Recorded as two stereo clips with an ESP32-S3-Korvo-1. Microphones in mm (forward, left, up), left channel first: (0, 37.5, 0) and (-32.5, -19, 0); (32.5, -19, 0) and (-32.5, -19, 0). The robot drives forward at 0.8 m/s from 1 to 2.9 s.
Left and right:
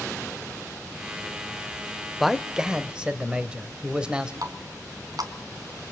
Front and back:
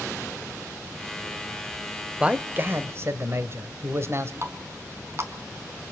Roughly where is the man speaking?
Behind.